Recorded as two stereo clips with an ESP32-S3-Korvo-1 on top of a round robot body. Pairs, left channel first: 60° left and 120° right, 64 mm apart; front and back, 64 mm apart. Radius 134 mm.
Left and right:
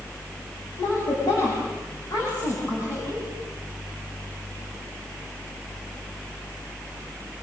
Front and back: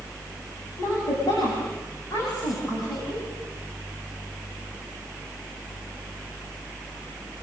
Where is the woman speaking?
30° left, 9.5 m.